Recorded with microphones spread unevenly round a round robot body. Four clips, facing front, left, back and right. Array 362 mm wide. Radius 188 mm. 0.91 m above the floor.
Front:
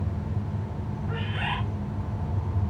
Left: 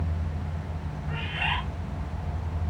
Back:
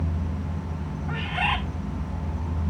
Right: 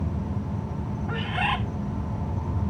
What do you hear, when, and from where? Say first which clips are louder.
0.0 s an insect: right 5 dB, back 2 dB; 80° right, 5 m
1.1 s a bird: right 4 dB, back 5 dB; 105° right, 3.5 m